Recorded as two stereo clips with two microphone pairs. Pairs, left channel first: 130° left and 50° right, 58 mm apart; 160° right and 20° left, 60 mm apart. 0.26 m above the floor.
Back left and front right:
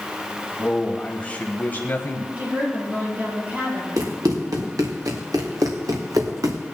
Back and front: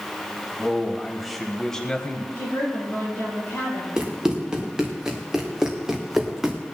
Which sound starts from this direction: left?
A man speaking, at 0.6 s.